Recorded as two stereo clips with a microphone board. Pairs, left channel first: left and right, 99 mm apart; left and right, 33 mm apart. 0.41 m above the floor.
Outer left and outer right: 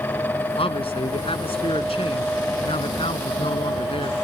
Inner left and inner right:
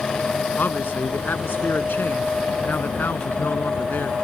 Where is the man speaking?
75° left (ahead or behind).